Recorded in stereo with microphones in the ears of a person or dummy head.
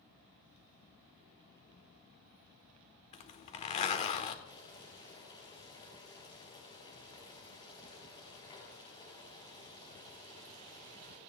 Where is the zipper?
30° left (ahead or behind), 1.0 m.